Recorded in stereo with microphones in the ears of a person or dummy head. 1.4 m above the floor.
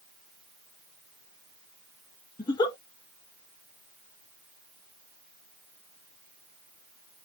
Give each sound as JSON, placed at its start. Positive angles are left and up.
{"t": 2.4, "sound": "a giggle", "side_deg": 25, "distance_m": 0.8}